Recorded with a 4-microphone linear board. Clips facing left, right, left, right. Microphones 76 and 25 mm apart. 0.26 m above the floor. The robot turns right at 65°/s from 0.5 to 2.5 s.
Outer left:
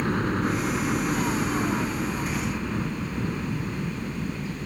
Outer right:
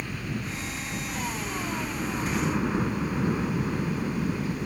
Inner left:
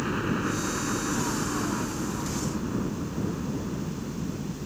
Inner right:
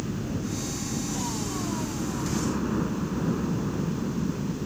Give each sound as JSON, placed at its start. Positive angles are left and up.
{"t": 0.0, "sound": "a helicopter", "azimuth_deg": 70}